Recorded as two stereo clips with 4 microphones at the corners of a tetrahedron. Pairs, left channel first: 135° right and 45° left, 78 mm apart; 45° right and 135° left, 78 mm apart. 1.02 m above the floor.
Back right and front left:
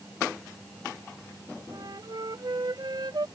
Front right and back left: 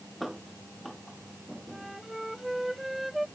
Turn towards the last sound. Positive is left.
turn(degrees=45)